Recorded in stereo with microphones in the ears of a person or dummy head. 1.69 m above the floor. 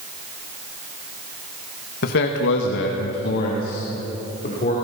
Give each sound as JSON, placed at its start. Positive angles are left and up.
{"t": 2.0, "sound": "a man speaking", "side_deg": 60, "distance_m": 1.7}